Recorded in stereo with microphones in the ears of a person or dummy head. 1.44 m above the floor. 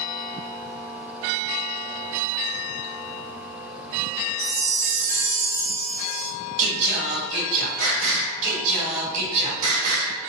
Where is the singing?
45° right (ahead or behind), 1.9 m.